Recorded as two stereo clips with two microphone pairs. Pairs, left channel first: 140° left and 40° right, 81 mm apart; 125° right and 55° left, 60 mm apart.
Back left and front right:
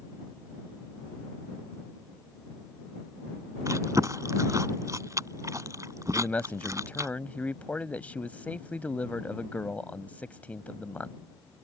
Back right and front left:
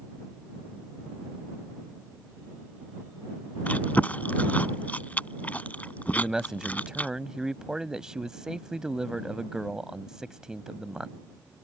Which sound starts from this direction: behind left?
A man speaking, at 6.1 s.